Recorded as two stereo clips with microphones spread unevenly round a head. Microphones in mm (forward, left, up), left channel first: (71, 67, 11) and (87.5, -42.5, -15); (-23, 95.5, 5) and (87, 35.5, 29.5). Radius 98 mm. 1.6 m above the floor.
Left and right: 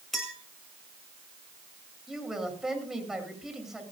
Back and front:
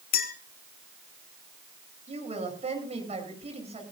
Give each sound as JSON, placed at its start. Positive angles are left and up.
{"t": 0.1, "sound": "a clink", "azimuth_deg": -175, "distance_m": 1.8}
{"t": 2.1, "sound": "a woman speaking", "azimuth_deg": 5, "distance_m": 10.0}